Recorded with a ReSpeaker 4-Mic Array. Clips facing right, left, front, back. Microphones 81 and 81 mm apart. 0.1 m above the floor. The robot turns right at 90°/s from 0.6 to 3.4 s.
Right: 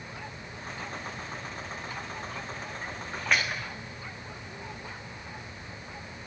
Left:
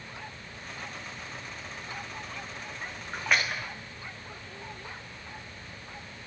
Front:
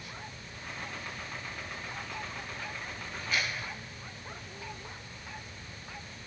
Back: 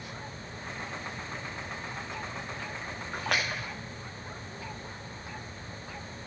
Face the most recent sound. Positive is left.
turn(degrees=180)